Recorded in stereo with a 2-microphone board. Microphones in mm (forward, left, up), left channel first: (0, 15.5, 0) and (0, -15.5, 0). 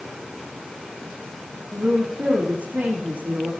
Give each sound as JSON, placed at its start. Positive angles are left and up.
{"t": 1.7, "sound": "a woman speaking", "side_deg": -75, "distance_m": 5.0}